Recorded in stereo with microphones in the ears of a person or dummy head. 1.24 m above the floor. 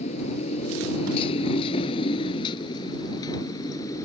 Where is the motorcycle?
35° left (ahead or behind); by 4.0 s 15° left (ahead or behind).